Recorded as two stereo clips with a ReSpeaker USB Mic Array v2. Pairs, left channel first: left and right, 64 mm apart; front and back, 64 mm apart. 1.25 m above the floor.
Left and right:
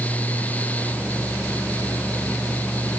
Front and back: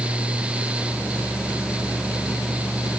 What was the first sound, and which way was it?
Only background noise.